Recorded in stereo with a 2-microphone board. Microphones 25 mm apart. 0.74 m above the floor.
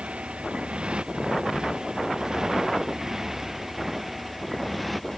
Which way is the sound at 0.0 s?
45° right (ahead or behind).